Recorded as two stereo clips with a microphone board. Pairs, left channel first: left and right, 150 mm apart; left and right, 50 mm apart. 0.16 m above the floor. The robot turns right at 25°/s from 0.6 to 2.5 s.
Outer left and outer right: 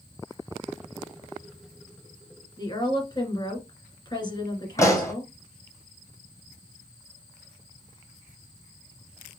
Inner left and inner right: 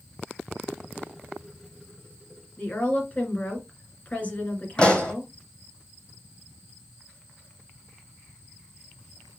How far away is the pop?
About 1.7 m.